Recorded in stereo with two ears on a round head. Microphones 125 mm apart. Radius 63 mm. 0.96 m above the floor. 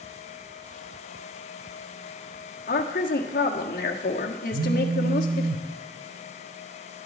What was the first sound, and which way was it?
A woman speaking, 65° left (ahead or behind).